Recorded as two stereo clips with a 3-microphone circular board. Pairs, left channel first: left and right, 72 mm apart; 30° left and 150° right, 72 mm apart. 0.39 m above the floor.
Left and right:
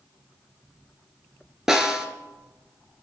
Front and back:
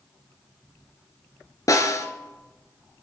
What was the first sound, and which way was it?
A snare drum, 5° right.